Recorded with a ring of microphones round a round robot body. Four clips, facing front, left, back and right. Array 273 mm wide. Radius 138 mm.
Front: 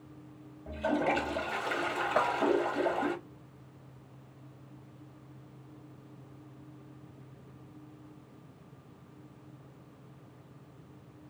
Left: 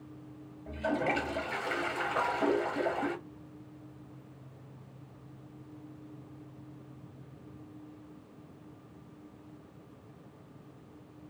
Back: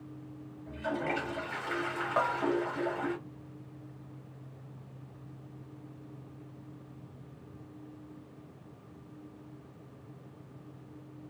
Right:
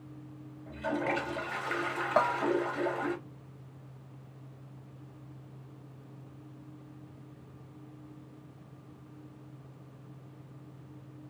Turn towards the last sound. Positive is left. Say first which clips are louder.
# right 6 dB, even
turn(degrees=-70)